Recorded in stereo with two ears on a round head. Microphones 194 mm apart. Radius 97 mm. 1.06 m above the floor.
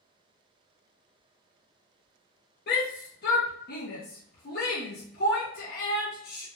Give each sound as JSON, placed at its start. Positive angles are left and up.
{"t": 2.7, "sound": "a shout", "side_deg": 45, "distance_m": 0.5}